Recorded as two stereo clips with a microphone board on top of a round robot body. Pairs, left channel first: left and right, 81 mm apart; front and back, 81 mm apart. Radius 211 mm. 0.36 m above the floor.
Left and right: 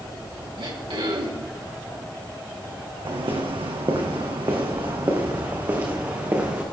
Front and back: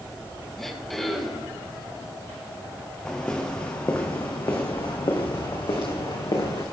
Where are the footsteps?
75° right, 2.5 m; by 6.6 s 25° right, 3.5 m.